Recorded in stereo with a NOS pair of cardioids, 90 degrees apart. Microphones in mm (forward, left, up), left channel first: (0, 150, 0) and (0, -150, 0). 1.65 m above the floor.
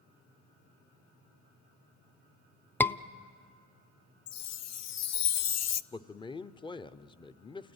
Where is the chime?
60° left, 0.6 m.